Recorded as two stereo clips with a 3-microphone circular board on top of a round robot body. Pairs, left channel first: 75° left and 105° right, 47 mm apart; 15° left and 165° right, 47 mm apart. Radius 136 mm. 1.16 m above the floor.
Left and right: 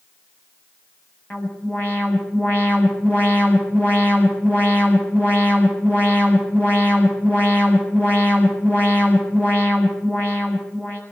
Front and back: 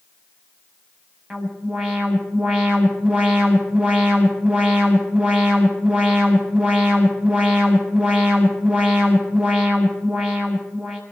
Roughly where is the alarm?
Behind left.